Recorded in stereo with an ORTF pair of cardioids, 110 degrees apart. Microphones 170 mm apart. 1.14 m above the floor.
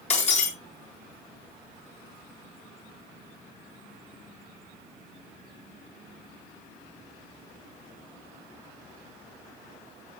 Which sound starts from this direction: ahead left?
Breaking glass, at 0.1 s.